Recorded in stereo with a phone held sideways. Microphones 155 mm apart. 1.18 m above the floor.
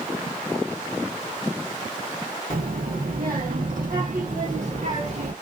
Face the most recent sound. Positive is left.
turn(degrees=-50)  # may be behind; listen again after turning